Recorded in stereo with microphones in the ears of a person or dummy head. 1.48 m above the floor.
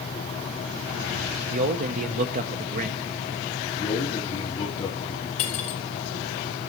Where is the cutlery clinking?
45° left (ahead or behind), 1.3 m.